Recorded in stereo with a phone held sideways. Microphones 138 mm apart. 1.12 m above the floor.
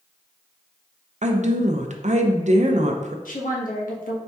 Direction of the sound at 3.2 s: 80° left.